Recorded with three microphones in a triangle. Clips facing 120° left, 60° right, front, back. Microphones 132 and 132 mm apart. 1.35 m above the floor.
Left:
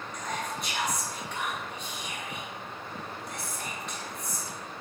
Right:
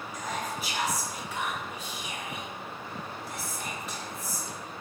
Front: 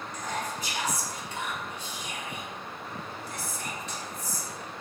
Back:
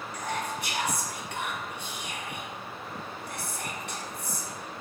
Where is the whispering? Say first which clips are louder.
Even, back 1 dB; 145° right, 0.9 m.